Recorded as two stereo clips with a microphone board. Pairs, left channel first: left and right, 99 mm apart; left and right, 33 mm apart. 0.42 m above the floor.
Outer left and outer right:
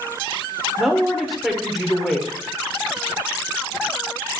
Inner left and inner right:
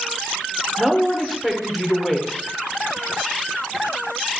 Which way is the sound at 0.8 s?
Centre (ahead or behind).